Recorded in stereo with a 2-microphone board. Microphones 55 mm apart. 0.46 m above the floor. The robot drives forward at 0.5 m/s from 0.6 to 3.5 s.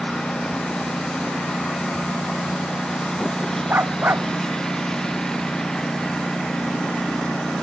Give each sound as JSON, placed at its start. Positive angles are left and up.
{"t": 0.0, "sound": "a lawn mower", "side_deg": 10}
{"t": 3.7, "sound": "a dog barking", "side_deg": -40}